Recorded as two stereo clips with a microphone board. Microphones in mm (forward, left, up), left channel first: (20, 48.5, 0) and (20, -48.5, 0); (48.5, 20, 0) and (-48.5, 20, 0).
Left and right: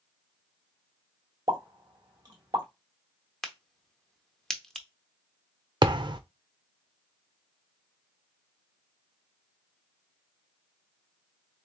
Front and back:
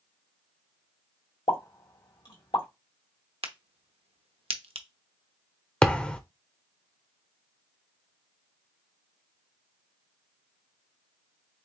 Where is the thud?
75° right, 0.6 m.